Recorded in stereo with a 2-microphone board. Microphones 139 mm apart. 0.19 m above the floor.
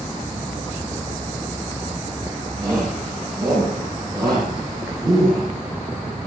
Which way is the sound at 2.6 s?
20° right (ahead or behind).